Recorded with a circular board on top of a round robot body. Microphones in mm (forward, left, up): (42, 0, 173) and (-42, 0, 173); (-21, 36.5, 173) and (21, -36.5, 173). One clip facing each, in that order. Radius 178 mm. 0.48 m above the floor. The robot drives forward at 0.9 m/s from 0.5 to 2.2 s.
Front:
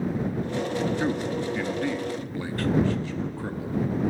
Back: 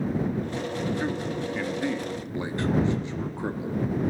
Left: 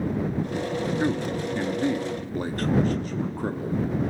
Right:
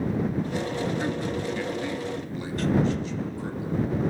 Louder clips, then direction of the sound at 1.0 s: Front 2 dB, left 2 dB; 65° left.